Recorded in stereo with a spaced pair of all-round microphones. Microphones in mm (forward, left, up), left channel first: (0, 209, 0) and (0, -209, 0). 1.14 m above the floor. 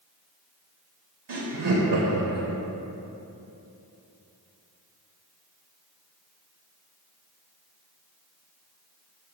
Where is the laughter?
70° right (ahead or behind), 0.5 m.